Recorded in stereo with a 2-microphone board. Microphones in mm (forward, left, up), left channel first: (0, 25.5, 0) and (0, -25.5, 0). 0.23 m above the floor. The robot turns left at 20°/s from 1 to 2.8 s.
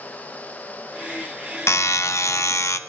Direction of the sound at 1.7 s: 65° left (ahead or behind).